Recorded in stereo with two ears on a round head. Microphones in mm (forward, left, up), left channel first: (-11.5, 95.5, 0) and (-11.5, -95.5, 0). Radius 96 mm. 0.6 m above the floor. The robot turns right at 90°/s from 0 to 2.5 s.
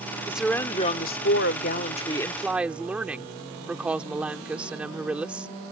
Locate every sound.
0.3 s a woman speaking: 15° right; by 5.5 s 170° right